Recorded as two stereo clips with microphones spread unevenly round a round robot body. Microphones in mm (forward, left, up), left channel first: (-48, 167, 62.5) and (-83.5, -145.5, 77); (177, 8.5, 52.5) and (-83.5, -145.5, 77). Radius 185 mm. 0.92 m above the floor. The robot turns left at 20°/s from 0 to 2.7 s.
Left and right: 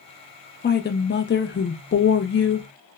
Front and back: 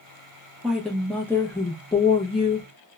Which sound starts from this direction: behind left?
A woman speaking, at 0.6 s.